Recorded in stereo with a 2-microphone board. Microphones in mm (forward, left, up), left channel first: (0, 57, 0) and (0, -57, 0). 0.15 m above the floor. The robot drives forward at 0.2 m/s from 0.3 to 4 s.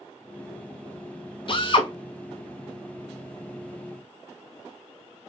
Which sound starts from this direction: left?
A drill, at 1.5 s.